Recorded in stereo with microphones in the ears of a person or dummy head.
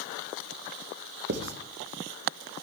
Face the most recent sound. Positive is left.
turn(degrees=-50)  # may be behind; listen again after turning